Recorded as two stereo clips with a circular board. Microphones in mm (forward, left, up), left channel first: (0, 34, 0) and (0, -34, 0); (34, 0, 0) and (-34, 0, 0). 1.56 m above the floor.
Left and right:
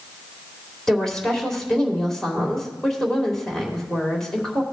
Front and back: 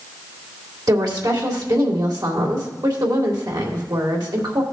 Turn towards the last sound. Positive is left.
turn(degrees=170)